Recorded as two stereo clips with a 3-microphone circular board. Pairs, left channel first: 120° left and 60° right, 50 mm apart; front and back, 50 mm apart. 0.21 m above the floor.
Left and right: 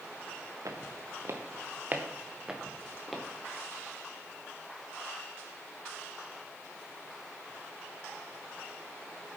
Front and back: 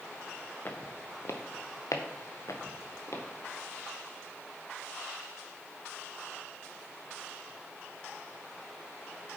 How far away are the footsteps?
About 2 m.